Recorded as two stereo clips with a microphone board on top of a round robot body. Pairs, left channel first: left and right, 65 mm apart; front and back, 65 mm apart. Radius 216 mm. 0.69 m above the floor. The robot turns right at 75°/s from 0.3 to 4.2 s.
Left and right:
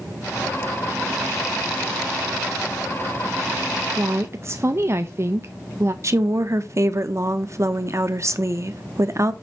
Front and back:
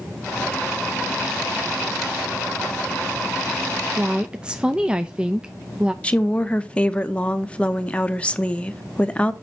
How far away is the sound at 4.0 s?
About 0.7 m.